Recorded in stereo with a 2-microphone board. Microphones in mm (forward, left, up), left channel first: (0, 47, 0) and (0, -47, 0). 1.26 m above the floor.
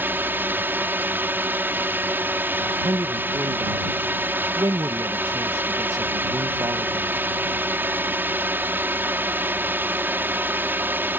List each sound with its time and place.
0.0 s a drone: 20° right (ahead or behind)
2.6 s a man speaking: 40° right (ahead or behind)